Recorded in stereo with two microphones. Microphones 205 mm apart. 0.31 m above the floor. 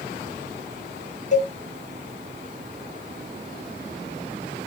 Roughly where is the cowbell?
Left.